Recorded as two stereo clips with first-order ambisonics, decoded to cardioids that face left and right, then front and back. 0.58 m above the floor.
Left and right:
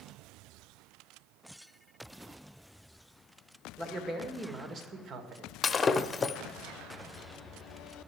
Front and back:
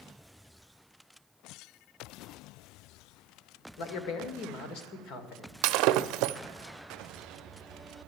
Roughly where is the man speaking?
Ahead.